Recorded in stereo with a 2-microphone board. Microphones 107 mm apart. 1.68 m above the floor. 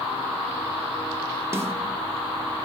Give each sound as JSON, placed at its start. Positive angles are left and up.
{"t": 1.5, "sound": "a snare drum", "side_deg": -25, "distance_m": 1.7}